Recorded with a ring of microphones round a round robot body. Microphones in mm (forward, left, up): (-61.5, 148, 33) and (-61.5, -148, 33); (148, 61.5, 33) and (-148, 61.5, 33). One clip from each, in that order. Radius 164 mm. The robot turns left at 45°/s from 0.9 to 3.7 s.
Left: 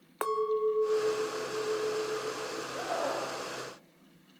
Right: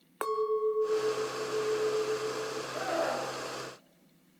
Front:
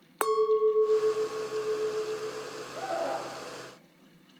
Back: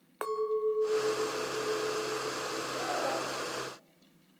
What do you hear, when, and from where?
0.2 s a clink: 15° left, 0.5 m; by 2.6 s 65° right, 0.5 m
2.7 s a scream: 120° right, 6.5 m; by 3.3 s 145° right, 6.5 m